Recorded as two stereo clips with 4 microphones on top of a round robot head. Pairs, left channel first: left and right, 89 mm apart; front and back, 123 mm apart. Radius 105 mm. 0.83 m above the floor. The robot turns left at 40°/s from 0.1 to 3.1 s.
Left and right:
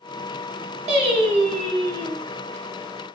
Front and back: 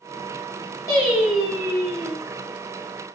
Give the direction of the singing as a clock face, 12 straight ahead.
2 o'clock.